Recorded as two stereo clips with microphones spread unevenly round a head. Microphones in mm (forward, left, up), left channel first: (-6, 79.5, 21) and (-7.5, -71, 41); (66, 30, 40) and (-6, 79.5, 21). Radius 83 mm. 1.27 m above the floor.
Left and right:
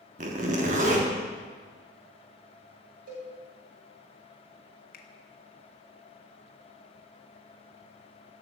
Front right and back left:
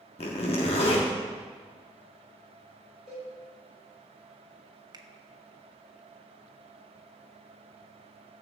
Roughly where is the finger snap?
Left.